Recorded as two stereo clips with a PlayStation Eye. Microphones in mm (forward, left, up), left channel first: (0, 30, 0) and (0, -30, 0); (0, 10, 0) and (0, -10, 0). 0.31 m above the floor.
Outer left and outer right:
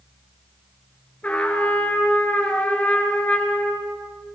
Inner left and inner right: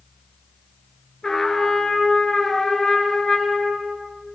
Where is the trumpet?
25° left (ahead or behind), 4 m.